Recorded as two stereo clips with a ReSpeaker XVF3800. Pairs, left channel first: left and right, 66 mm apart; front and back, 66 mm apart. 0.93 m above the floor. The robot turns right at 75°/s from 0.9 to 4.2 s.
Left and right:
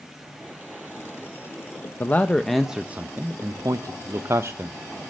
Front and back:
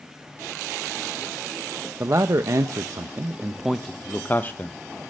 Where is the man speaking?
140° left, 0.5 m; by 4.8 s 55° right, 0.5 m.